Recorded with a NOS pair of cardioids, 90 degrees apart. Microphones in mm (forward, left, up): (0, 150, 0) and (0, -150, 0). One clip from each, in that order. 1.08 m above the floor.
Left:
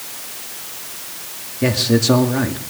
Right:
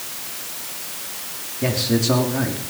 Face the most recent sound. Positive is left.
turn(degrees=30)